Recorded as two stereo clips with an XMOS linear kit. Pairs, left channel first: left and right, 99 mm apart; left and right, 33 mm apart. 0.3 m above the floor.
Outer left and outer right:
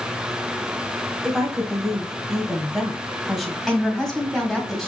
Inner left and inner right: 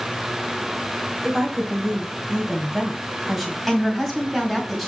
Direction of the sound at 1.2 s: Centre (ahead or behind).